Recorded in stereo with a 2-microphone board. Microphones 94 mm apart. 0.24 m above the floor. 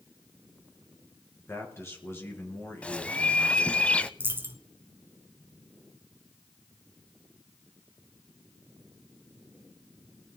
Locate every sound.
1.4 s a man speaking: 30° left (ahead or behind), 4 m
2.8 s a bird: 15° left (ahead or behind), 0.6 m
4.2 s a dropped coin: 25° right (ahead or behind), 1.2 m